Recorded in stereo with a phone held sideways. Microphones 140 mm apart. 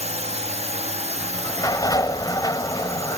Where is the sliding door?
30° left (ahead or behind).